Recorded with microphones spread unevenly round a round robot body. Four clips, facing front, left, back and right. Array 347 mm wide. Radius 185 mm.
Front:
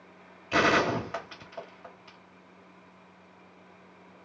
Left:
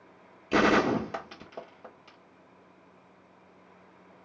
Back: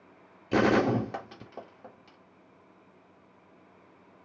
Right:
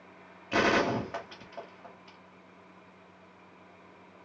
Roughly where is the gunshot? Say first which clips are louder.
Left 3 dB, back 1 dB; behind left.